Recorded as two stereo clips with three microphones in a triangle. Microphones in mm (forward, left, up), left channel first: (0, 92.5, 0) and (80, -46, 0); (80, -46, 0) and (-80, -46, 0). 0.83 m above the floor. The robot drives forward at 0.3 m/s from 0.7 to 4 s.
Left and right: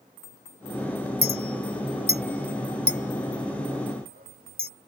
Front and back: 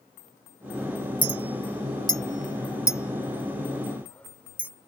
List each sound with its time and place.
1.2 s a clink: 60° right; by 4.7 s 80° right